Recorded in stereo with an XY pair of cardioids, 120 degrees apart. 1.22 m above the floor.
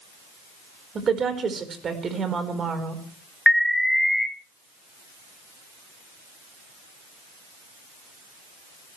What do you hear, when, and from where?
0.9 s a woman speaking: 40° right, 4.5 m
3.5 s an alarm: 5° left, 1.5 m